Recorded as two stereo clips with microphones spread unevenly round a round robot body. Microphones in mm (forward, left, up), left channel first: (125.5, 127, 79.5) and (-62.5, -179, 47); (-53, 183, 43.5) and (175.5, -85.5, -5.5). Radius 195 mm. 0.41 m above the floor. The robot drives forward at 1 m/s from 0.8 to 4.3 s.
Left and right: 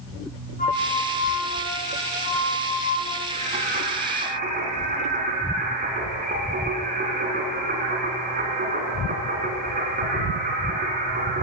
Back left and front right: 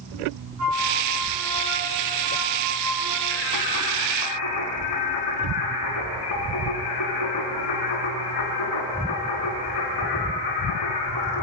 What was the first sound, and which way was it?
A flute, 10° right.